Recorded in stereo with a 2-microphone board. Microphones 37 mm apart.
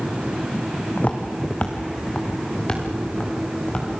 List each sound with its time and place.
1.0 s footsteps: 40° left (ahead or behind), 2 m; by 3.9 s 25° left (ahead or behind), 6.5 m